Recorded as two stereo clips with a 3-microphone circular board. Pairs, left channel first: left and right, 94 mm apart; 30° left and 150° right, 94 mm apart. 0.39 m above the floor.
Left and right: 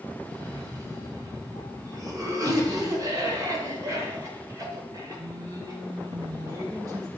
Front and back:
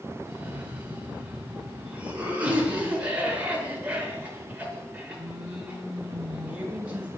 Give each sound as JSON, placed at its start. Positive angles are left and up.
{"t": 0.2, "sound": "a cough", "azimuth_deg": -85, "distance_m": 1.7}